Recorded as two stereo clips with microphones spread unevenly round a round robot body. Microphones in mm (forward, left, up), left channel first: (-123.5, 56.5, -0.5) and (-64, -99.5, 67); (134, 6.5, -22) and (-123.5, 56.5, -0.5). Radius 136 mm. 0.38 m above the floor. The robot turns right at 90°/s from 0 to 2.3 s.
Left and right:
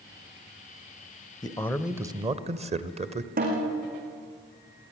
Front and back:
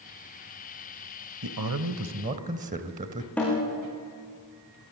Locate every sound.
1.4 s a man speaking: 150° left, 1.4 m; by 3.3 s 130° right, 1.4 m
3.4 s a snare drum: 95° right, 6 m